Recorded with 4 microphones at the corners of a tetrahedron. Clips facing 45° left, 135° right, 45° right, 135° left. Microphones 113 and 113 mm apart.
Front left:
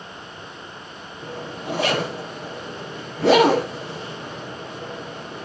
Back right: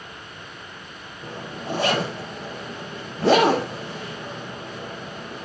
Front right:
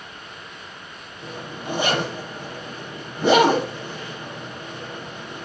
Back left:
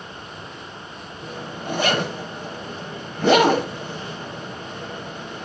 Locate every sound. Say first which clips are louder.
1.2 s a zipper: front left 1 dB, back left 1 dB; 30° left, 5 m